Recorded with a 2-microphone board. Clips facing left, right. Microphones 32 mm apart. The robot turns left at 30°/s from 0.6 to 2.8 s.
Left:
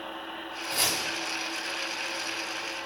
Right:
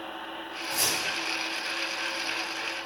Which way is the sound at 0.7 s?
60° left (ahead or behind).